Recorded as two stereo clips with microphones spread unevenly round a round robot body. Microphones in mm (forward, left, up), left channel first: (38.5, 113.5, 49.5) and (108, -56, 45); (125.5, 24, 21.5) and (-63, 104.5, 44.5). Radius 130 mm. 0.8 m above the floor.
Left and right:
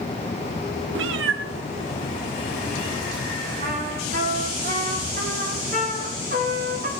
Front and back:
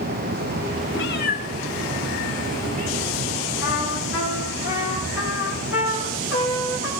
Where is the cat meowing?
60° right, 0.6 m; by 3.2 s 100° right, 3 m.